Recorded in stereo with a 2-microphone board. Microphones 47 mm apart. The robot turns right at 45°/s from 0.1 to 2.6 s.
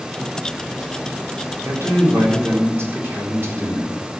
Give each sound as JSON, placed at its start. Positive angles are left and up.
{"t": 1.6, "sound": "a man speaking", "azimuth_deg": -95, "distance_m": 4.5}